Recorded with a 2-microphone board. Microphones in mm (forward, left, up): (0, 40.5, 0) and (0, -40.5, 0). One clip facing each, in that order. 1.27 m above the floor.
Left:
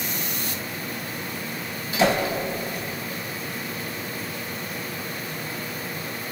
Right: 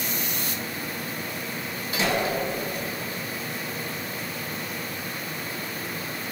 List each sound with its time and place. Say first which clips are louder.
2.0 s a whoosh: left 5 dB; 80° left, 3.5 m